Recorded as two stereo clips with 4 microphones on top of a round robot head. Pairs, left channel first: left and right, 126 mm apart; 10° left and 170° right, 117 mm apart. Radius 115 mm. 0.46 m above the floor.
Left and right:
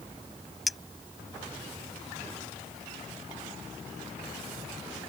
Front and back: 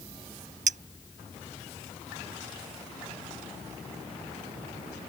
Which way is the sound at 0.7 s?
Straight behind.